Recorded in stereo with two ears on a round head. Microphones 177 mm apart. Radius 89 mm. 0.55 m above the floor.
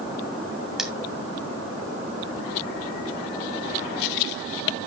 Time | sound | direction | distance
0.8 | cutlery clinking | centre (ahead or behind) | 2 m